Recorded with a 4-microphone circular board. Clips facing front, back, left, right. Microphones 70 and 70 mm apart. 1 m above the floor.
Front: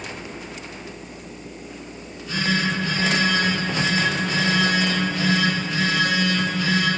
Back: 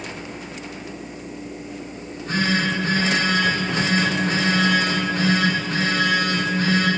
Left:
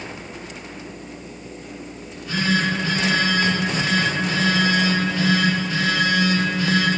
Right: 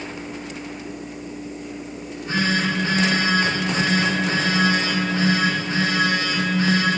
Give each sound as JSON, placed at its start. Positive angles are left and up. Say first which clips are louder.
{"t": 2.0, "sound": "a phone buzzing", "louder": "back 4 dB, right 3 dB", "azimuth_deg": -140, "distance_m": 3.0}